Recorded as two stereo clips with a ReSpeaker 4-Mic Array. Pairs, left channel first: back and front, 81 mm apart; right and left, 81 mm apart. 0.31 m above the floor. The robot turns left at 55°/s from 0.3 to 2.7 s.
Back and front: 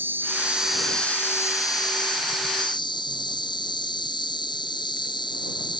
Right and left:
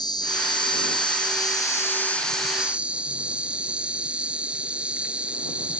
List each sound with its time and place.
0.0 s an insect: 65° right; by 5.8 s 165° left